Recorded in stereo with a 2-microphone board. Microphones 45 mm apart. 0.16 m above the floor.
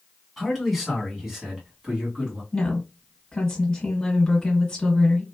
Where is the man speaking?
Centre (ahead or behind), 1.4 m; by 2.4 s 25° right (ahead or behind), 1.5 m.